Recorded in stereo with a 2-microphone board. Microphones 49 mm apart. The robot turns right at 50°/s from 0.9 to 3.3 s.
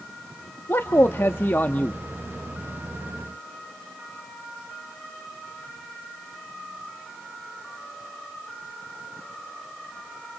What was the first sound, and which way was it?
A man speaking, 85° left.